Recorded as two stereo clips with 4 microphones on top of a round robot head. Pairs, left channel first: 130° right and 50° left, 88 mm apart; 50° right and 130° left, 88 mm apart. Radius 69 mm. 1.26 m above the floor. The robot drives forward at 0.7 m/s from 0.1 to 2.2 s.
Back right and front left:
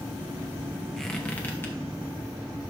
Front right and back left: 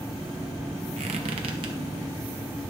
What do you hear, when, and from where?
1.0 s a squeak: 140° left, 0.6 m; by 1.8 s 165° left, 1.0 m